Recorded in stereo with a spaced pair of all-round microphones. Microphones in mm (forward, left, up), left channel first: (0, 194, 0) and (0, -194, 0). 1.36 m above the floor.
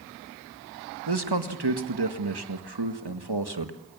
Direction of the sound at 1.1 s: 80° right.